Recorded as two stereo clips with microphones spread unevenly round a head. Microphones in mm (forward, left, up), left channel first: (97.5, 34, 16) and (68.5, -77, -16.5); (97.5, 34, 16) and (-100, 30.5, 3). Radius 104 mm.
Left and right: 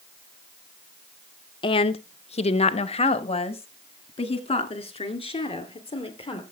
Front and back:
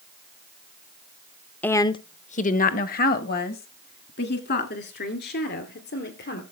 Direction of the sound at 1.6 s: 80° left.